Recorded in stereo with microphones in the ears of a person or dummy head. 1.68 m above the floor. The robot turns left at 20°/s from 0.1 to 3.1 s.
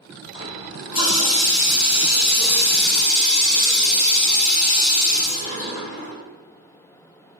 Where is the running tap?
110° left, 1.6 m; by 6.2 s 55° left, 1.6 m.